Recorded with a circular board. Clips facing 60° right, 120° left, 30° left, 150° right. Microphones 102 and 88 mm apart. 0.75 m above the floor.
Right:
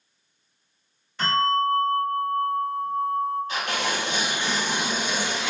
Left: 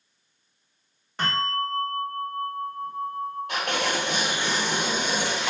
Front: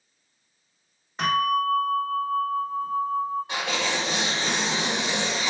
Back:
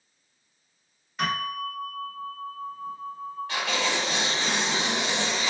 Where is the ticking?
No ticking in this recording.